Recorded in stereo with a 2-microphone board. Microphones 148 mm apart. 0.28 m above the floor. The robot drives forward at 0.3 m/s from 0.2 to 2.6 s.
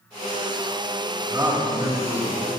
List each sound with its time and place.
1.3 s a man speaking: 25° right (ahead or behind), 1.6 m